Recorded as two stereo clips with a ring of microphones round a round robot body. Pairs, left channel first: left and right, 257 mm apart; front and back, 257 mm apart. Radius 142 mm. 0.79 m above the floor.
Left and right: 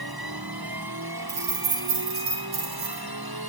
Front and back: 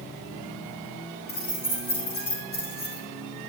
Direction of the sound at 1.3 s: 60° right.